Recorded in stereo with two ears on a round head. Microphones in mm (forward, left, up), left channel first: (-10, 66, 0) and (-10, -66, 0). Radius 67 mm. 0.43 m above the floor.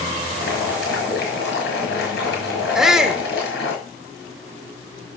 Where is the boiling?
70° left (ahead or behind), 5.5 m.